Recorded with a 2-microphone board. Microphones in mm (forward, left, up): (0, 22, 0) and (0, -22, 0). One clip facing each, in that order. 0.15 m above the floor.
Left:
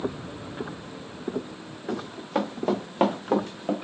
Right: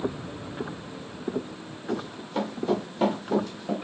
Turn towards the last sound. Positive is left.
turn(degrees=40)  # may be behind; listen again after turning